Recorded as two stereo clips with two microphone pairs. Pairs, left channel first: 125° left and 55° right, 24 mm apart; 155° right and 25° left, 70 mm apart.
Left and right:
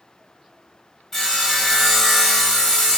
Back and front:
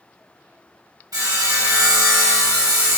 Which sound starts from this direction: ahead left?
Sawing, at 1.1 s.